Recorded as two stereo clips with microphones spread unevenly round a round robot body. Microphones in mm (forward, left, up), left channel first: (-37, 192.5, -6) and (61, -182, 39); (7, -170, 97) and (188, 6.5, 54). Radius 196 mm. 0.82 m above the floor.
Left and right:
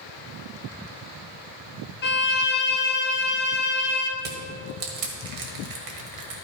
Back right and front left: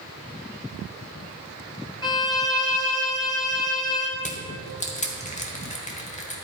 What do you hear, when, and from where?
2.0 s a violin: 145° left, 1.3 m
4.2 s crushing: 75° right, 1.8 m